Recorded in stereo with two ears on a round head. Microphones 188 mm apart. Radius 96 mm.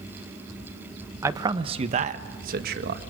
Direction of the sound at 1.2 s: 15° right (ahead or behind).